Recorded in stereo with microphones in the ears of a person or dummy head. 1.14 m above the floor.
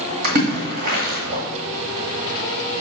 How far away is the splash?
About 2.5 m.